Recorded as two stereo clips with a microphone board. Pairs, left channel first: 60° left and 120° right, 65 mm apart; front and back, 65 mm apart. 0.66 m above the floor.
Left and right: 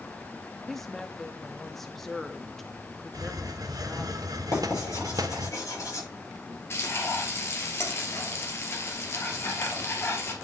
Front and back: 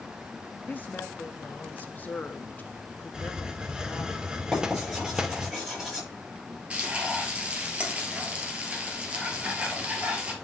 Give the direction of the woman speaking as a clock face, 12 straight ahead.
1 o'clock.